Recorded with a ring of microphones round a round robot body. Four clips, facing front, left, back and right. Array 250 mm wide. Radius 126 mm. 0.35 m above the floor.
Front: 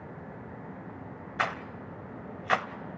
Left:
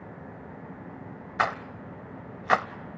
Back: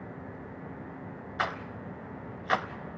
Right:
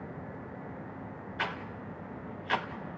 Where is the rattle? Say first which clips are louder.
Left 9 dB, front 1 dB; 85° left, 0.9 m.